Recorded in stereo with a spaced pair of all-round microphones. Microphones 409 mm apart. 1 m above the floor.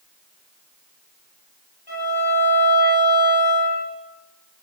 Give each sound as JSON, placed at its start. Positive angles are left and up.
{"t": 1.9, "sound": "a violin", "side_deg": 65, "distance_m": 7.0}